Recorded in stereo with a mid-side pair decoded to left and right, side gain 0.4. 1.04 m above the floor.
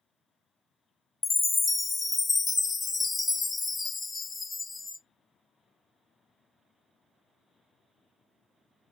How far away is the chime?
About 0.5 m.